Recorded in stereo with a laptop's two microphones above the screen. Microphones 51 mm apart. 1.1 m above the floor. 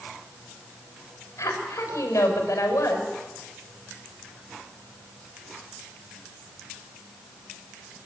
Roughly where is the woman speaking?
Left.